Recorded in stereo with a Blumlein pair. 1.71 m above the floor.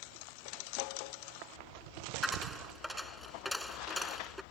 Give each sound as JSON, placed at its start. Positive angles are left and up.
{"t": 2.2, "sound": "a dropped coin", "azimuth_deg": 5}